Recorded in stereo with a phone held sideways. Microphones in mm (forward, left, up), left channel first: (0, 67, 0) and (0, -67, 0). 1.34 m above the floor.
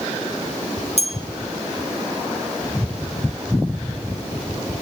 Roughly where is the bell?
Left.